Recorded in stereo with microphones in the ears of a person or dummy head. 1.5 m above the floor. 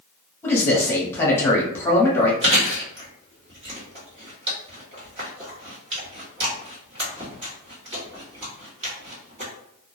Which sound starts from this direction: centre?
A man speaking, at 0.4 s.